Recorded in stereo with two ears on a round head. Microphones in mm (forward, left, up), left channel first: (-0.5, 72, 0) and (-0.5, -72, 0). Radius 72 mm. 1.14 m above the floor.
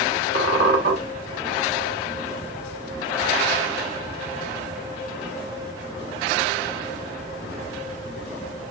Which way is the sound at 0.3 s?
75° right (ahead or behind).